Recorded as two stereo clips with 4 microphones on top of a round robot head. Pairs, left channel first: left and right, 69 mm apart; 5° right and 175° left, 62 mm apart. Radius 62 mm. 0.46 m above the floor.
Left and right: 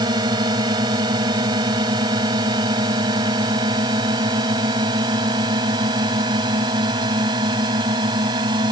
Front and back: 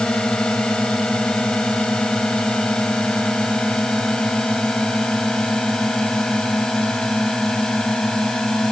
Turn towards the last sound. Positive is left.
turn(degrees=-90)